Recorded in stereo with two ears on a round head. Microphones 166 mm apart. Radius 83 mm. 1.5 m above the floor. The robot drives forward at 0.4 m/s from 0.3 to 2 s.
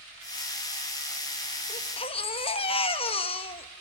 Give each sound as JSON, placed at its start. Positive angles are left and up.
{"t": 1.7, "sound": "a baby crying", "side_deg": 35, "distance_m": 1.0}